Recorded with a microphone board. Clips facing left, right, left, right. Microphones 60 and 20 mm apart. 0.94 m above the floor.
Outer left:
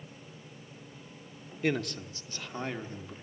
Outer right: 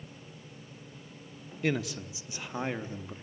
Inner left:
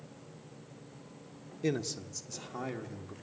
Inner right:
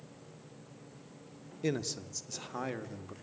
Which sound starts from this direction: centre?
A man speaking, at 1.6 s.